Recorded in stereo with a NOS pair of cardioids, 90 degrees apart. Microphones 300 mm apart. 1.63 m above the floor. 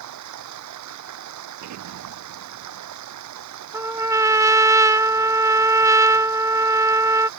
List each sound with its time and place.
0.0 s running water: 70° right
1.6 s an explosion: 65° right
3.7 s a trumpet: 10° right